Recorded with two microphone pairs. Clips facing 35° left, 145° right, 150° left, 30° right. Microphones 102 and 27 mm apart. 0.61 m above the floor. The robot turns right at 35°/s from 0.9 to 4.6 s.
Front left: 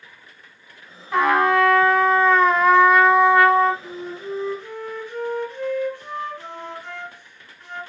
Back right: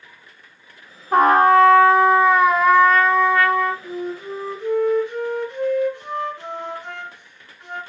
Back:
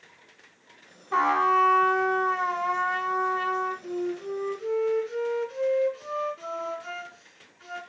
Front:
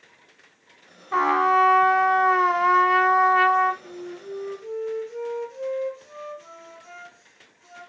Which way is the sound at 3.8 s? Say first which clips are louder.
Back right 3 dB, back 6 dB; 115° left.